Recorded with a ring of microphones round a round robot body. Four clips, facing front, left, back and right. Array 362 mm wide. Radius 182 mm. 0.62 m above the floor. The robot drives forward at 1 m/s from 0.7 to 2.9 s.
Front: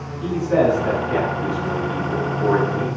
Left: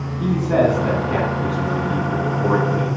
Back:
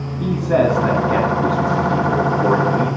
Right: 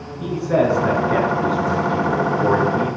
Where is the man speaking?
155° left, 7 m; by 2.9 s 160° left, 9 m.